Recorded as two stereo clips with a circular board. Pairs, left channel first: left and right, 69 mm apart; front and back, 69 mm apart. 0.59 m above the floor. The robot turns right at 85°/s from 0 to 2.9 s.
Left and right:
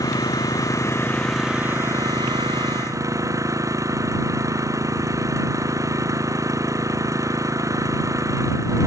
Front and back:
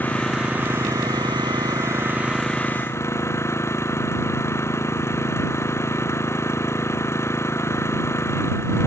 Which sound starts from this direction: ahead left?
An engine running, at 0.0 s.